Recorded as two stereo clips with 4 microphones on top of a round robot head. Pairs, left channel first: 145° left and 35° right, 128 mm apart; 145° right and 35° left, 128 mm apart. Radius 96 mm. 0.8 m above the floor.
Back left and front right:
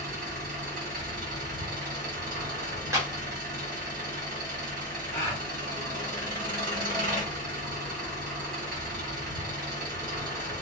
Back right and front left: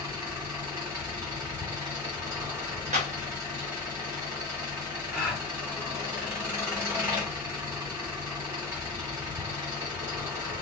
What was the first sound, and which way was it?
An engine running, 35° right.